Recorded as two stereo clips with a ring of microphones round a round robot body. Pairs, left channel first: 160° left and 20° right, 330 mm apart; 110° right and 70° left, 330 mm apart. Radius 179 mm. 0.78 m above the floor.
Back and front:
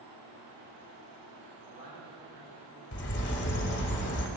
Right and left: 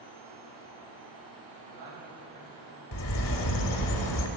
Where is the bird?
145° right, 1.3 m.